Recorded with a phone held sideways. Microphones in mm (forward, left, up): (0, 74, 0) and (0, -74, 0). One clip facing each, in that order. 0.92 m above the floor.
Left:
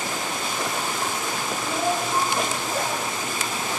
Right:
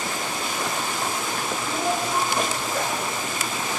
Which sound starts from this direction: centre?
A child speaking, at 1.6 s.